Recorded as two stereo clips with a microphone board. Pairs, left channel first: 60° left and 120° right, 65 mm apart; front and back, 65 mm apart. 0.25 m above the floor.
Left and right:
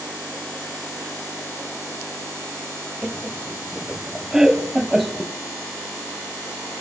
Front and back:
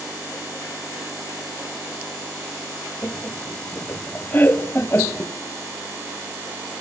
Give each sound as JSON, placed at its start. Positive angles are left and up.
{"t": 3.0, "sound": "laughter", "azimuth_deg": -40, "distance_m": 1.2}